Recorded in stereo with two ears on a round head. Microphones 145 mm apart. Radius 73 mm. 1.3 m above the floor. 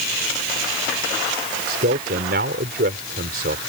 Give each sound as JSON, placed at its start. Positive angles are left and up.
{"t": 1.7, "sound": "a man speaking", "side_deg": -60}